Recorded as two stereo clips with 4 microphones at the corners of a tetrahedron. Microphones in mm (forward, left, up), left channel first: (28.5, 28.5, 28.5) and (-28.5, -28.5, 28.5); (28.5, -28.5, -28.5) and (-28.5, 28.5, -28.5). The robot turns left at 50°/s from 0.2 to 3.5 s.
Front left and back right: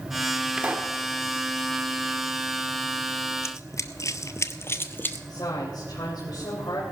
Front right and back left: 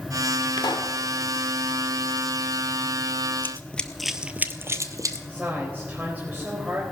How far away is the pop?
About 1.1 m.